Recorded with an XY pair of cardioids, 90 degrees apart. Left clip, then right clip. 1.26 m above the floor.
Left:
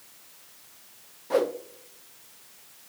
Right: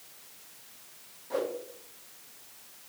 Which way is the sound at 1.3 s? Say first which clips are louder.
Left 7 dB; 65° left.